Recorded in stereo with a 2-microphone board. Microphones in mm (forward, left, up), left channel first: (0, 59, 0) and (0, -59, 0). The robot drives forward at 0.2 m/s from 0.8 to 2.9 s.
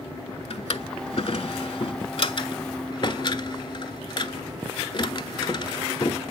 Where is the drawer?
55° left (ahead or behind), 0.5 m; by 6.2 s 45° left (ahead or behind), 0.6 m.